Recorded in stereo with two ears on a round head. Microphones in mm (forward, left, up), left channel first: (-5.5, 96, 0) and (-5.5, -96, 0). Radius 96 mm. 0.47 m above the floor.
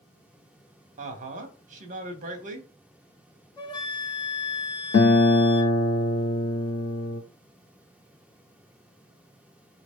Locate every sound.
1.0 s a woman speaking: 35° right (ahead or behind), 1.0 m
3.6 s a flute: 20° left (ahead or behind), 0.8 m
4.9 s a guitar: 45° left (ahead or behind), 0.6 m